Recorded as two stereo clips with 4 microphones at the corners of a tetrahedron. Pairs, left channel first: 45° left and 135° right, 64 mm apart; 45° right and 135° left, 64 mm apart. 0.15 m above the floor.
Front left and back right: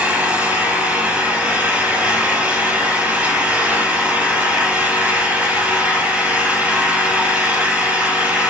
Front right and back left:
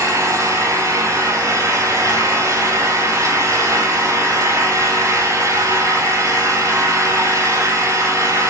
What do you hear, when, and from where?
0.0 s an engine running: 155° left, 5 m